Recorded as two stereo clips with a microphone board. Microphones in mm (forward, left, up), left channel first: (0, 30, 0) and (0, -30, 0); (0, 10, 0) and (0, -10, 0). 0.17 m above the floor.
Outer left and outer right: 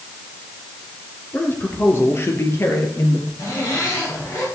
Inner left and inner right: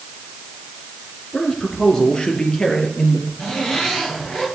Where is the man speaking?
30° left (ahead or behind), 3.5 m; by 3.3 s 50° left (ahead or behind), 4 m.